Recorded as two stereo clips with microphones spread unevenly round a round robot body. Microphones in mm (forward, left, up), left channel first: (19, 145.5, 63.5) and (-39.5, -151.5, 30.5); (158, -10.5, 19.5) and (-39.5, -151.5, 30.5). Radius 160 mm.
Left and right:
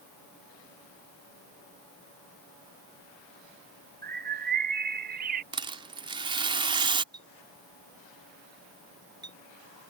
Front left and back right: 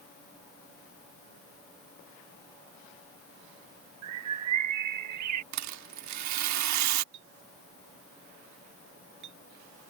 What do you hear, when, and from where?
4.0 s a bird: 165° right
5.5 s a rattle: 175° right
7.1 s a clink: straight behind